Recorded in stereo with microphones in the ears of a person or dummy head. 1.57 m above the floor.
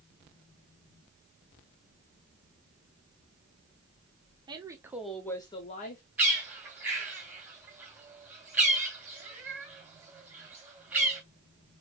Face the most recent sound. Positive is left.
turn(degrees=-10)  # may be behind; listen again after turning